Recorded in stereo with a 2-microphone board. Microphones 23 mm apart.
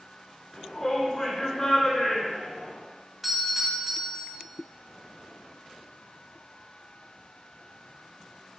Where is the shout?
10° left (ahead or behind), 3.5 m.